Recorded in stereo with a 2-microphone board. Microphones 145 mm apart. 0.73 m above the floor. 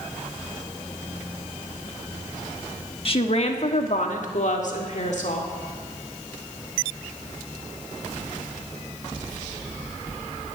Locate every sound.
3.0 s a woman speaking: 40° left (ahead or behind), 1.3 m; by 5.5 s 60° left (ahead or behind), 2 m